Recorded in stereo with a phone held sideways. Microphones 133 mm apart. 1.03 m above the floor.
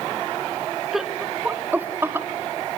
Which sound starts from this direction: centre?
Laughter, at 0.9 s.